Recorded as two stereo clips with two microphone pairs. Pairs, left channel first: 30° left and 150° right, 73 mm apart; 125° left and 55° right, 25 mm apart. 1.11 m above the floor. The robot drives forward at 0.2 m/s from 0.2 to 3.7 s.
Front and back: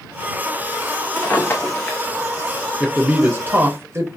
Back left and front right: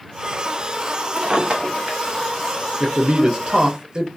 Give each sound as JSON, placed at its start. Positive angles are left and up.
{"t": 1.2, "sound": "a drawer", "azimuth_deg": -25, "distance_m": 0.9}
{"t": 2.8, "sound": "a man speaking", "azimuth_deg": -75, "distance_m": 0.5}